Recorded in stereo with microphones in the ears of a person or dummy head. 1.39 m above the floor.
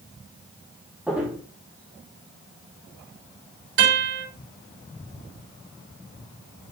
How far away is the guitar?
About 4.5 m.